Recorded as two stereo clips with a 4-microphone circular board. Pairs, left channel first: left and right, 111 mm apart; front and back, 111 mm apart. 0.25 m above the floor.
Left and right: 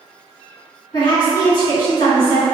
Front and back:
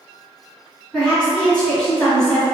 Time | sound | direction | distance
0.9 | a woman speaking | 75° left | 2.0 m